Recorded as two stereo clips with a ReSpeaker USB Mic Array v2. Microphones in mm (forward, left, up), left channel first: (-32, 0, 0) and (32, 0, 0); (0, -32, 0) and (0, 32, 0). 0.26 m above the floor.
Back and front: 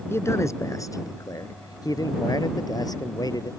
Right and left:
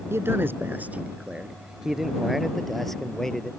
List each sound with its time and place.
0.1 s a man speaking: 135° left; by 3.5 s 170° right